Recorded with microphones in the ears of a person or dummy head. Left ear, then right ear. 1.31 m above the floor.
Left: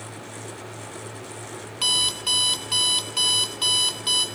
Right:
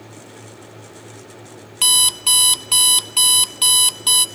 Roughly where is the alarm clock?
Right.